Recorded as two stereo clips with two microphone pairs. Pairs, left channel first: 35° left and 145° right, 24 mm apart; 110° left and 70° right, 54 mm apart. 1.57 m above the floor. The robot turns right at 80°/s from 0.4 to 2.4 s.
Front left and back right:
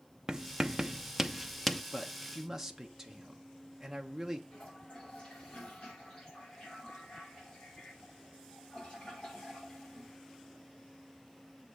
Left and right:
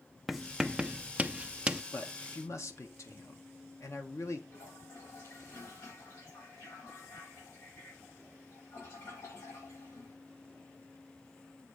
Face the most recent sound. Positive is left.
turn(degrees=90)